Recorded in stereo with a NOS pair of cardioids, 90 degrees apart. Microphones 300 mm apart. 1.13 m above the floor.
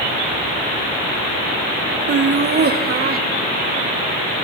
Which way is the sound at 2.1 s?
35° right.